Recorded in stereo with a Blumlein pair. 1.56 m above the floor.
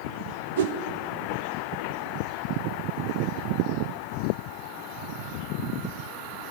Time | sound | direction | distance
0.6 | a whoosh | 55° right | 0.5 m